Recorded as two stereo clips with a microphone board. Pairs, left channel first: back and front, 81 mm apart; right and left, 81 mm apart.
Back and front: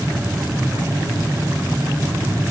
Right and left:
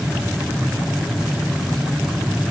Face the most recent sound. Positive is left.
No sound to turn to.